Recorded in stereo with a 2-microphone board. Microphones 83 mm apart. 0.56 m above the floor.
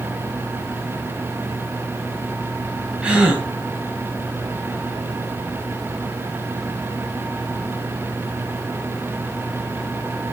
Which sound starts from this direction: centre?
A gasp, at 3.0 s.